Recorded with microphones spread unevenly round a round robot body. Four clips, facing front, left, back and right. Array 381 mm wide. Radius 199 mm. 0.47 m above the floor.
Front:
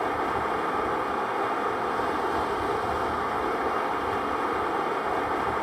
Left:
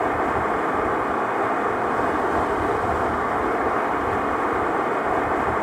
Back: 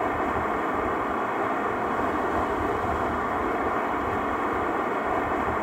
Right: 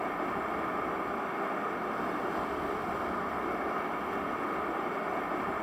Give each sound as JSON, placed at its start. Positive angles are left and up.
{"t": 0.0, "sound": "running water", "azimuth_deg": 80, "distance_m": 0.7}